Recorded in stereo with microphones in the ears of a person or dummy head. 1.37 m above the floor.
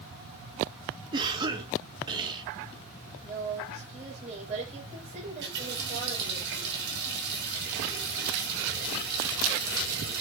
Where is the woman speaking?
35° right (ahead or behind), 6 m.